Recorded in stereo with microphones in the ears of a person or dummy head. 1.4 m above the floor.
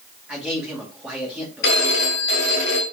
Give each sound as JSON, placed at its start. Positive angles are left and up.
{"t": 0.3, "sound": "a man speaking", "side_deg": -5, "distance_m": 2.0}
{"t": 1.6, "sound": "a phone ringing", "side_deg": 70, "distance_m": 1.7}